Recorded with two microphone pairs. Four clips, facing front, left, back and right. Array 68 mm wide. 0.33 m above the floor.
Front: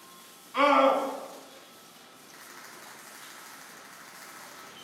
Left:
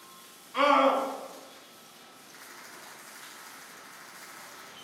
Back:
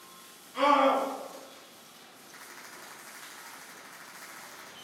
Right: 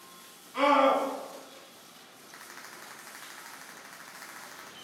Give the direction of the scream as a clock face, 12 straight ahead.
11 o'clock.